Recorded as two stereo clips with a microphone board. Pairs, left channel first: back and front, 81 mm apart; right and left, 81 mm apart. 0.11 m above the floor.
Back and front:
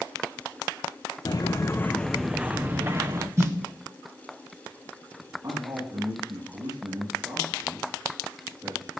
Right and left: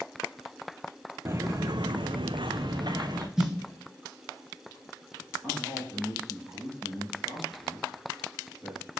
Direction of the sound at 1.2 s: 145° left.